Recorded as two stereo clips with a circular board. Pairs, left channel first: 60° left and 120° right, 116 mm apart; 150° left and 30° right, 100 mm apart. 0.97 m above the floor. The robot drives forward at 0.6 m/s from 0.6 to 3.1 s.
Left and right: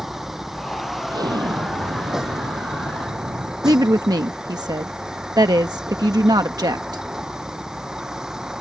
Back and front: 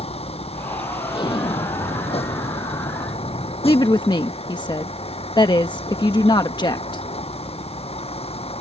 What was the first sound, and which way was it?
A vehicle, 155° left.